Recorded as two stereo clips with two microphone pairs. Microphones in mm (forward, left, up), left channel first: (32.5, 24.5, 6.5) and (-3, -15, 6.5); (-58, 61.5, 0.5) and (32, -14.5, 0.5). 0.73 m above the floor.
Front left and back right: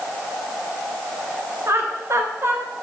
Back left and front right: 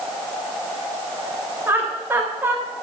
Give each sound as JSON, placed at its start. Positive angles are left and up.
{"t": 1.7, "sound": "laughter", "azimuth_deg": -105, "distance_m": 3.0}